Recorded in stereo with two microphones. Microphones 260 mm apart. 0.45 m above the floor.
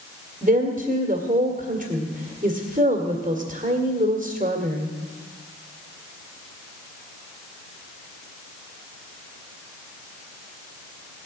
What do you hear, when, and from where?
0.4 s a woman speaking: 30° right (ahead or behind), 1.8 m